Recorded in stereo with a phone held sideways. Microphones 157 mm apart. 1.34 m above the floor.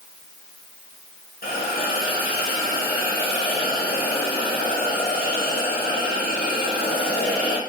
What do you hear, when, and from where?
1.4 s a hiss: 75° left (ahead or behind), 1.1 m